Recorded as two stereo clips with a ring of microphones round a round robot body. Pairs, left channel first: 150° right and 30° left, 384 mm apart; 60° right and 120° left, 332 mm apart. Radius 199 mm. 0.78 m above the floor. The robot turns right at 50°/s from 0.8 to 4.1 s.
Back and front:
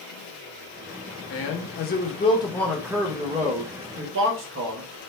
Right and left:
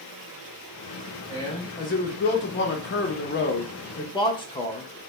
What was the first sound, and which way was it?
A man speaking, 135° right.